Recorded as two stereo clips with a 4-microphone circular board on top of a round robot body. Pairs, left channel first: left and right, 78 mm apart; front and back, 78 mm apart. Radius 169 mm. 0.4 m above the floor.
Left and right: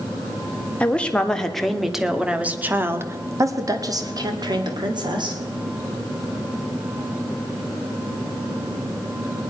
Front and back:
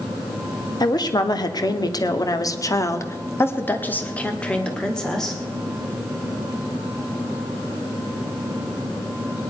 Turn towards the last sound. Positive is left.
turn(degrees=-85)